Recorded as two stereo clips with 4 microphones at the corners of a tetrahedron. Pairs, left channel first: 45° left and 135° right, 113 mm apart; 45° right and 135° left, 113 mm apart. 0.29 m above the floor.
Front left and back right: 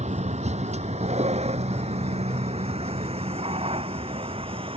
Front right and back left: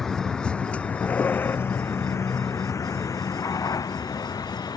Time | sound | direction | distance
0.0 | a vehicle | 130° right | ?